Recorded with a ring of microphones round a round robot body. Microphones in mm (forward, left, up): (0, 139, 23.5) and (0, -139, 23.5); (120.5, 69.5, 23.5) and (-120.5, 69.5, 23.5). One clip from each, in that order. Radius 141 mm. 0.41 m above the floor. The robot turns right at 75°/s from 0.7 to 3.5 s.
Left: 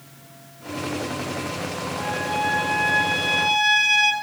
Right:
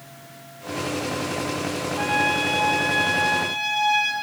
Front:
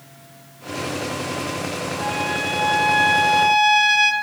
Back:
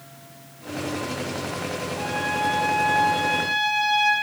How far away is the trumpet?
About 3 m.